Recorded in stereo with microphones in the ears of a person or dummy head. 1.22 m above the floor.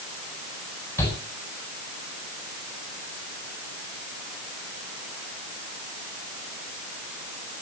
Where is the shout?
15° left (ahead or behind), 8.5 m.